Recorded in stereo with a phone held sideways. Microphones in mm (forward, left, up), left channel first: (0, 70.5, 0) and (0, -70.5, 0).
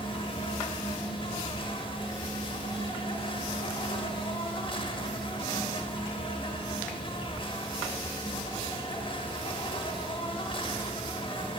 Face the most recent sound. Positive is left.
turn(degrees=35)  # may be behind; listen again after turning